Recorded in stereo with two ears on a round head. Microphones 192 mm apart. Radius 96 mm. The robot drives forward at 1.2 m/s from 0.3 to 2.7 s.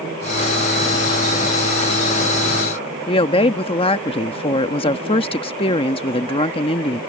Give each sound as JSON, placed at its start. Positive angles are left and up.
{"t": 3.1, "sound": "a woman speaking", "side_deg": 25}